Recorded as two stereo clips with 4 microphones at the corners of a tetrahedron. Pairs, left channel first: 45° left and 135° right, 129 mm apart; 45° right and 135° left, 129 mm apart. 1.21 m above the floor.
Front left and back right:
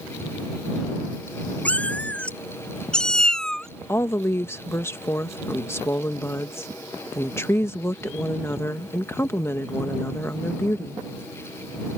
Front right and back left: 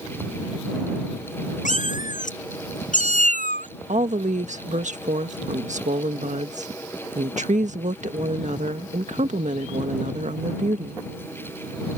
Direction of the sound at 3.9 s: 115° left.